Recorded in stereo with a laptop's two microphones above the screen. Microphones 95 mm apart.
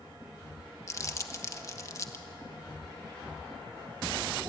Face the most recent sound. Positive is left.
turn(degrees=35)  # may be behind; listen again after turning